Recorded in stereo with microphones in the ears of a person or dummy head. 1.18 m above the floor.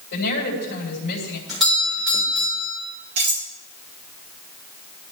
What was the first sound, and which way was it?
A woman speaking, 50° left (ahead or behind).